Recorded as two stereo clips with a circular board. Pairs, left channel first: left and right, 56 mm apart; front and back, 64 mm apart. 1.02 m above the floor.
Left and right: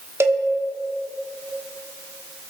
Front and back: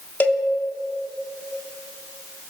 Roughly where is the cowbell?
Ahead right.